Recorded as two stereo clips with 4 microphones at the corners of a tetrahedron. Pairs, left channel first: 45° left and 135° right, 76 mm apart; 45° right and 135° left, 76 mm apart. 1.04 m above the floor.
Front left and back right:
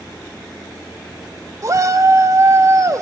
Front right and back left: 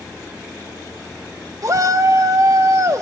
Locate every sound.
1.6 s a shout: straight behind, 1.3 m